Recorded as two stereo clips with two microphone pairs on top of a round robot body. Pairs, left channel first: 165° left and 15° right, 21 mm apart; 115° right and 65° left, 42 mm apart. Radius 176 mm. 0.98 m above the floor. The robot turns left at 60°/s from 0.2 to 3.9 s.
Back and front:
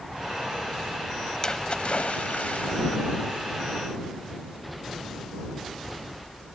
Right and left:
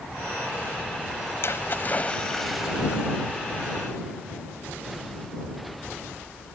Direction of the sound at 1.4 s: 135° right.